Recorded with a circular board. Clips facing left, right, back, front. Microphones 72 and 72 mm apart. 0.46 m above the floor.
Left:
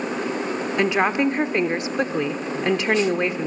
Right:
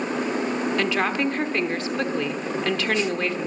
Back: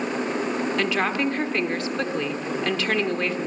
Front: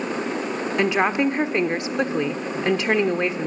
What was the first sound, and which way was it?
A woman speaking, 45° left.